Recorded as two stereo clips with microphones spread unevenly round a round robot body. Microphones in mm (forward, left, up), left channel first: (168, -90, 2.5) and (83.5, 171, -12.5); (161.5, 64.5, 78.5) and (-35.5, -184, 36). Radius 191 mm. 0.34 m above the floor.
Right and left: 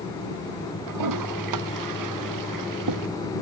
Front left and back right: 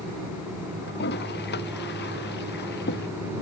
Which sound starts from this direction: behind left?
A toilet flushing, at 0.9 s.